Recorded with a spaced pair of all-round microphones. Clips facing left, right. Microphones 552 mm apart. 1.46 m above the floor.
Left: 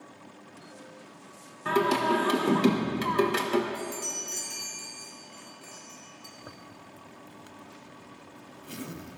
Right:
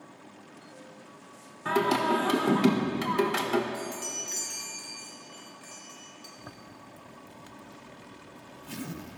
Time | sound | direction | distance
1.6 | singing | 10° right (ahead or behind) | 1.3 m
3.7 | a chime | 80° right | 2.5 m
6.4 | a zipper | 20° right (ahead or behind) | 0.6 m